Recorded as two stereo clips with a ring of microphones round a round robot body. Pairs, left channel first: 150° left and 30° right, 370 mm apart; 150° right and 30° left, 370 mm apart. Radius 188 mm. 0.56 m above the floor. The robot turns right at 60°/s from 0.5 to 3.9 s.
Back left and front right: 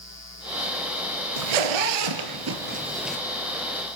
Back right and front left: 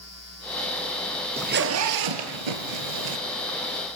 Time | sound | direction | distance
1.4 | a zipper | 45° right | 3 m